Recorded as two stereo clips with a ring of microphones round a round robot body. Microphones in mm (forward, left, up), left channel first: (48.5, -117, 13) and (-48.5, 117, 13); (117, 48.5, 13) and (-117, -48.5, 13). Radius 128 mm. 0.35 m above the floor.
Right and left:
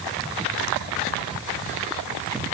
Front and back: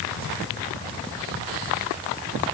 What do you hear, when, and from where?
Only background noise.